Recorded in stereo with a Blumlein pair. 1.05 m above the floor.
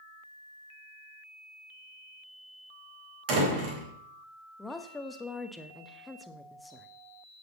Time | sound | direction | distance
3.3 | a door slam | 40° right | 3.5 m
4.6 | a woman speaking | 5° left | 1.1 m